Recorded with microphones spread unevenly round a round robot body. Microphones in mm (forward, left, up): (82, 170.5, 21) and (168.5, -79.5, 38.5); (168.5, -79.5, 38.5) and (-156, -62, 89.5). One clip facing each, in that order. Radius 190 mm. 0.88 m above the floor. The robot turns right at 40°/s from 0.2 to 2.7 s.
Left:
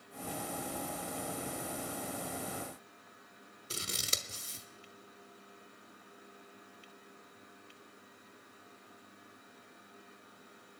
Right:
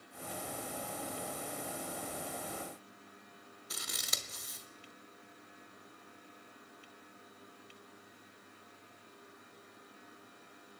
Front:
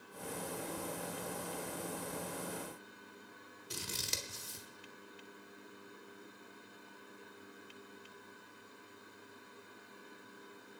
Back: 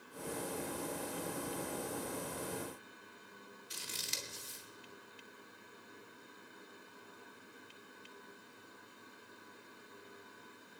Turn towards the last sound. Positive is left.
turn(degrees=45)